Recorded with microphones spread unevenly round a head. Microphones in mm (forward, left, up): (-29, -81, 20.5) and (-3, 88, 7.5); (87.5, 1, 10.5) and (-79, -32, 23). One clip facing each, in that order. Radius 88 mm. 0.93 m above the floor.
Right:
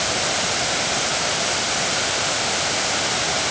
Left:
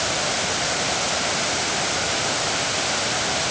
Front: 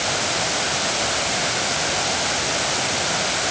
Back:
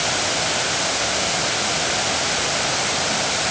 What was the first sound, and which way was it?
Only background noise.